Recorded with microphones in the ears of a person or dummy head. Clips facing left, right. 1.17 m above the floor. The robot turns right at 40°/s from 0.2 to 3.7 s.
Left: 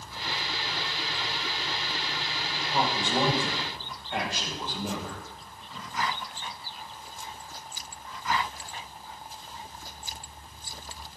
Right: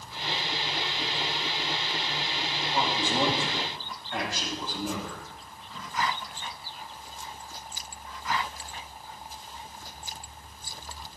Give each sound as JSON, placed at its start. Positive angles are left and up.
{"t": 2.7, "sound": "a man speaking", "azimuth_deg": 130, "distance_m": 6.5}